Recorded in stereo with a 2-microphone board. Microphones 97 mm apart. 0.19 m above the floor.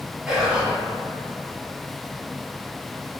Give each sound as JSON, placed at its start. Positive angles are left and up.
{"t": 0.3, "sound": "whispering", "side_deg": -10, "distance_m": 1.1}